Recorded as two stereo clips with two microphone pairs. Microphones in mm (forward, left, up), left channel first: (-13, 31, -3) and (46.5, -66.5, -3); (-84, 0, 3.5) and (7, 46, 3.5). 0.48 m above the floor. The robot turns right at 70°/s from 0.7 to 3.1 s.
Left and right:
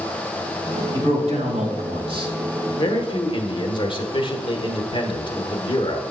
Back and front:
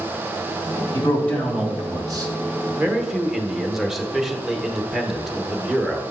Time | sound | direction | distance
0.9 | a man speaking | 105° right | 2.5 m
2.8 | a man speaking | 90° left | 1.0 m